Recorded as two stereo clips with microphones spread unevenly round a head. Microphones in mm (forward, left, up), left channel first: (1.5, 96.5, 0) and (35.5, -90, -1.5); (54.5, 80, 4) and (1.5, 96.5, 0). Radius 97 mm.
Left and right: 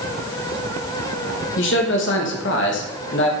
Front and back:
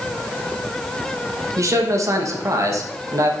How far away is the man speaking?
About 2 m.